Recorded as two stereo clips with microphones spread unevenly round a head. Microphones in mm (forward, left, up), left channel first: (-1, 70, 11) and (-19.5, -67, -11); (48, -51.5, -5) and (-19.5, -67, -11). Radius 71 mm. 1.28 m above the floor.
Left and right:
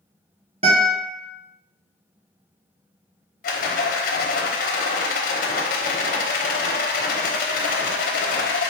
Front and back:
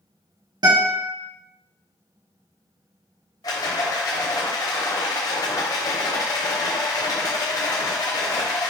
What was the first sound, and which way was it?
A guitar, 145° right.